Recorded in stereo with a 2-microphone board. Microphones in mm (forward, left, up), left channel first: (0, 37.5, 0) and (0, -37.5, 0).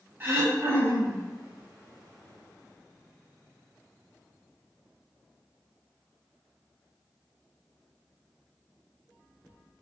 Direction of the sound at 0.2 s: 30° right (ahead or behind).